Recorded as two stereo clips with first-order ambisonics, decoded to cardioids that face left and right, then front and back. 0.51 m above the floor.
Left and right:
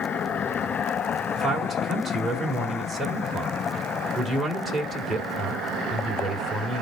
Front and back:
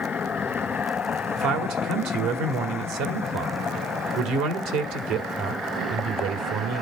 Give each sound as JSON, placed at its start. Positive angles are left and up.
{"t": 1.4, "sound": "a man speaking", "azimuth_deg": -170, "distance_m": 2.0}